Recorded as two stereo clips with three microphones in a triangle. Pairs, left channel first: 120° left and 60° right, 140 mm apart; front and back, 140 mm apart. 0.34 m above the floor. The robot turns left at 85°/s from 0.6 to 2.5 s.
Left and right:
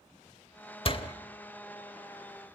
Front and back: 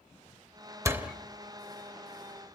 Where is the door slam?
120° left, 1.1 m; by 1.1 s 95° left, 1.1 m.